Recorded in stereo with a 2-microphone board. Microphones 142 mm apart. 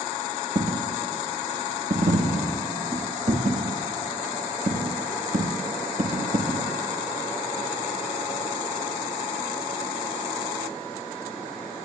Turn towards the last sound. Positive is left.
turn(degrees=-70)  # may be behind; listen again after turning